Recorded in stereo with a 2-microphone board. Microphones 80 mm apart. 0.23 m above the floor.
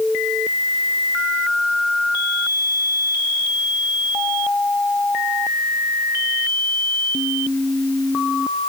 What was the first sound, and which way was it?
Only background noise.